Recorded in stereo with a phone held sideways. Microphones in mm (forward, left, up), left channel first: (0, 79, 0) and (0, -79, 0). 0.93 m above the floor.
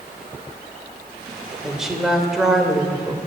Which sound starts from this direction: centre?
A woman speaking, at 1.6 s.